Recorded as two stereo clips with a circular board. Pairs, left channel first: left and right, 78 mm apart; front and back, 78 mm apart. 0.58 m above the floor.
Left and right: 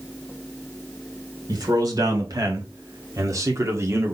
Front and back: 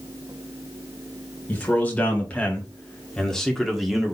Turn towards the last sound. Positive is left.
turn(degrees=-100)